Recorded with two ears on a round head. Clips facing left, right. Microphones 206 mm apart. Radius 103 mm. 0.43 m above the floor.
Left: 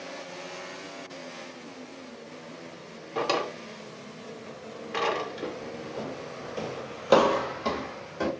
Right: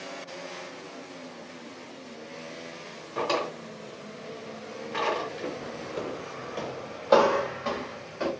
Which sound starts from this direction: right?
Footsteps, at 6.0 s.